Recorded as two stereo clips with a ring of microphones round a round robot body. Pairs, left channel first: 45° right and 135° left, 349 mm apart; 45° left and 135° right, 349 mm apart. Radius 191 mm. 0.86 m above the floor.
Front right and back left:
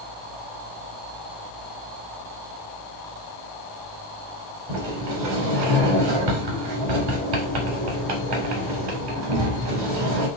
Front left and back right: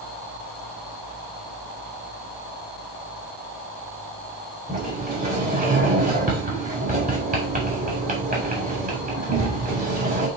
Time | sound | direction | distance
4.7 | a sliding door | 155° left | 3 m